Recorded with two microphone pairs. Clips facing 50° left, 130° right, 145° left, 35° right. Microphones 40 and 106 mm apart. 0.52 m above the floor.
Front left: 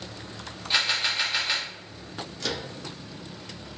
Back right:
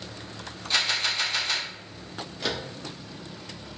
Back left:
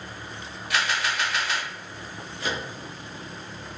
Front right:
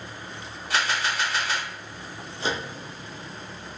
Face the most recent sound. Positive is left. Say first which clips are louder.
# back right 2 dB, front right 2 dB
turn(degrees=-70)